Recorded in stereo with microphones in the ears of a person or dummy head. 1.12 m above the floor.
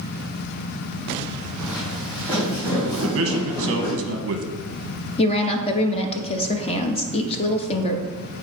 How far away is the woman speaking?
About 0.9 m.